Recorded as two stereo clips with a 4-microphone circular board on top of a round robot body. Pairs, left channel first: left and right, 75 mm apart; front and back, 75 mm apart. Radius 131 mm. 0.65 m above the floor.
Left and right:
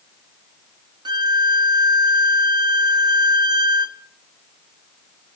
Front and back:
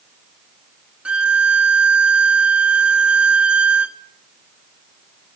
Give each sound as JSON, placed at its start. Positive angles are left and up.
{"t": 1.1, "sound": "a violin", "azimuth_deg": -105, "distance_m": 0.8}